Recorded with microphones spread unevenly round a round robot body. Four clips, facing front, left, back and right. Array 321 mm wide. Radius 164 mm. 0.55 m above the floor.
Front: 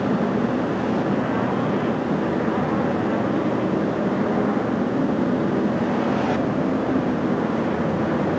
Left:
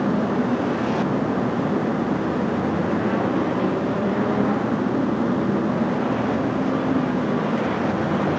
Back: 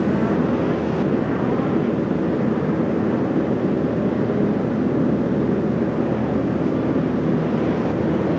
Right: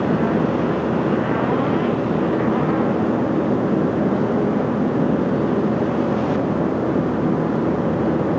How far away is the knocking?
No knocking in this recording.